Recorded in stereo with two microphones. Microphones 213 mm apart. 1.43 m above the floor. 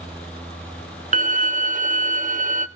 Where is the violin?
40° right (ahead or behind), 0.7 m.